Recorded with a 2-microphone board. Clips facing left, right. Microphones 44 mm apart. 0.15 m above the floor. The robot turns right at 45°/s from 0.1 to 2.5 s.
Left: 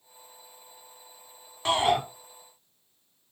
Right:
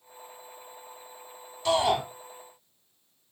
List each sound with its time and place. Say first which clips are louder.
1.6 s a shout: even; 45° left (ahead or behind), 2.0 m; by 2.0 s 55° left (ahead or behind), 2.0 m